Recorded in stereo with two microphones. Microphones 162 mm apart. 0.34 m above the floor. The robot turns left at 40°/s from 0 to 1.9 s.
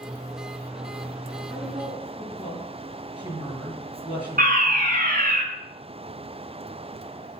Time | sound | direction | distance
1.5 | a woman speaking | 15° right (ahead or behind) | 7 m
4.4 | a fire alarm | 60° right (ahead or behind) | 5 m